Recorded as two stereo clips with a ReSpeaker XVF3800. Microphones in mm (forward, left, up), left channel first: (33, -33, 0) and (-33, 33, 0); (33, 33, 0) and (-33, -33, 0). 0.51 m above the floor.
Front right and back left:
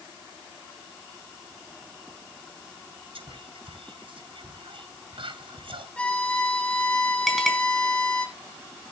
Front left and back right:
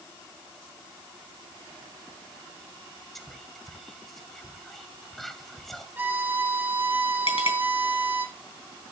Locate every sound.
3.1 s whispering: 135° left, 2 m
6.0 s a violin: 100° right, 1.2 m
7.3 s a clink: 45° left, 3 m